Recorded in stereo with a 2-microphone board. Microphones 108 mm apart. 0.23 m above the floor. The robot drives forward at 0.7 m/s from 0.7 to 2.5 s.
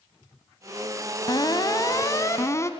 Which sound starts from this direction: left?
An alarm, at 1.3 s.